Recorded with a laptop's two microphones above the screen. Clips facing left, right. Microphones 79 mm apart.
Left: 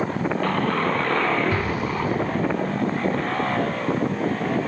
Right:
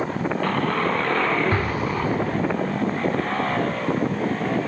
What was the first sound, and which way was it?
An explosion, 45° right (ahead or behind).